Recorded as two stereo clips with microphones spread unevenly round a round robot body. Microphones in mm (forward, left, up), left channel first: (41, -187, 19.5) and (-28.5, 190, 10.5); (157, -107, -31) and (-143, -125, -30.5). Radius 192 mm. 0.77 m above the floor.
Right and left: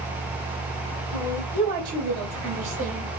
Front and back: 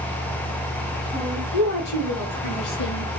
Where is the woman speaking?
60° left, 4 m; by 3.1 s 45° left, 3.5 m.